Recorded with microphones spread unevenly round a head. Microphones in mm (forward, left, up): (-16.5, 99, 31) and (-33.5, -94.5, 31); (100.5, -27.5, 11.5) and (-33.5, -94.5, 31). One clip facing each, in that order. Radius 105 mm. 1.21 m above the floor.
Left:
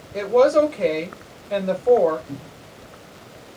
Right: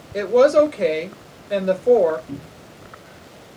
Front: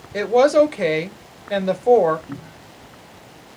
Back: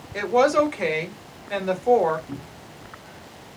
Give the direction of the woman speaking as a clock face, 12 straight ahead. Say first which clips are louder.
Right 2 dB, front 5 dB; 1 o'clock.